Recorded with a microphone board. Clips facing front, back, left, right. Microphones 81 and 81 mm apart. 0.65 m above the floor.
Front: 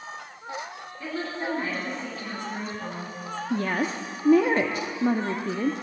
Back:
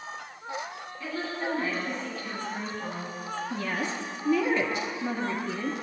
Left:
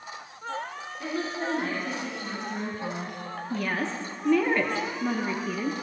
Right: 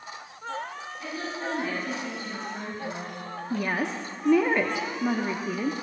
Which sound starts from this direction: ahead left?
A woman speaking, at 1.0 s.